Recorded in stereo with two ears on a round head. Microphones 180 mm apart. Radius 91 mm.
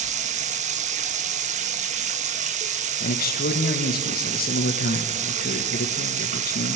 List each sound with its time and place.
0.0 s running water: 35° right (ahead or behind), 1.3 m
3.0 s a man speaking: 50° left (ahead or behind), 2 m